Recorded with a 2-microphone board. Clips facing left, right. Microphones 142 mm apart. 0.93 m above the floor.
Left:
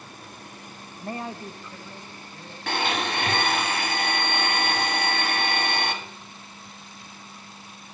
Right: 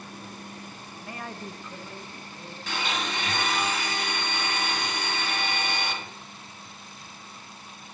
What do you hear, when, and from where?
1.0 s a man speaking: 50° left (ahead or behind), 0.6 m; by 2.6 s 25° right (ahead or behind), 2.5 m
2.7 s a blender: 65° left (ahead or behind), 1.5 m